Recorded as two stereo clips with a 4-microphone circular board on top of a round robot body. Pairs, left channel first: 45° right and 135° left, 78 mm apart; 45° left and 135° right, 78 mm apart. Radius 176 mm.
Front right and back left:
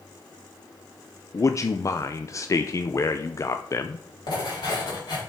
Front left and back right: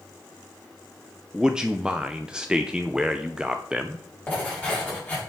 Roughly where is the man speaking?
Ahead right.